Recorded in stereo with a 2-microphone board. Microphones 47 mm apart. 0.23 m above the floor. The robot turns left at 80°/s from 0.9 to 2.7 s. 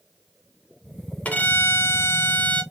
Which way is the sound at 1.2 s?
145° left.